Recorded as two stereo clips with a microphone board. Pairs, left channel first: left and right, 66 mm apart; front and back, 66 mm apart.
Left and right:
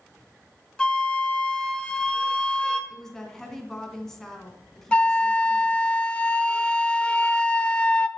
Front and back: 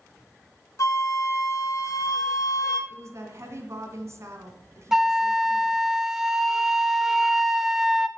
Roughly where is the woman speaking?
Behind.